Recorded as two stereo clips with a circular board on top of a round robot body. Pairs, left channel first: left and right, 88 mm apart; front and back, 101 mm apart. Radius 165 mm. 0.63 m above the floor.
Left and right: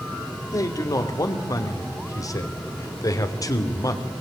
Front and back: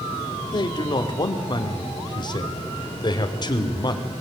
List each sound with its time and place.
0.5 s a man speaking: 40° left, 2.5 m